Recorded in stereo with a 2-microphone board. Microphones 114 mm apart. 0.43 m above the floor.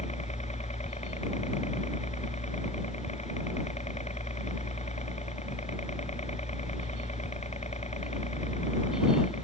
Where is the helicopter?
80° left.